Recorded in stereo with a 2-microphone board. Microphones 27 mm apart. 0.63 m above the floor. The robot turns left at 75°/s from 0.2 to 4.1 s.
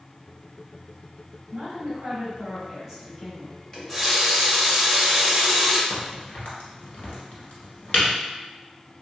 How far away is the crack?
About 1.6 m.